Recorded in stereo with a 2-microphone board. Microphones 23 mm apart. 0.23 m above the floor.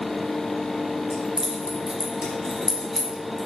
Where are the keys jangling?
50° right (ahead or behind), 1.4 m; by 3.5 s 5° right (ahead or behind), 1.4 m.